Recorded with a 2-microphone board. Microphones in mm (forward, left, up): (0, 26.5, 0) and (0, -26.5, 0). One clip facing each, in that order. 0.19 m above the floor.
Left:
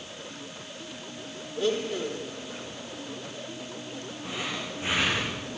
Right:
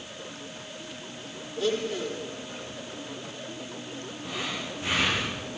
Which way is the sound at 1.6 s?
10° left (ahead or behind).